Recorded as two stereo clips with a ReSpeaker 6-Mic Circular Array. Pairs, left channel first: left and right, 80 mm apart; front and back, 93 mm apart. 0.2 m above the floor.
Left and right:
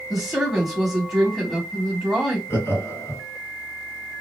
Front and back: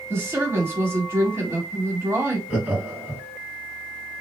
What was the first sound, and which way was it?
A woman speaking, 170° right.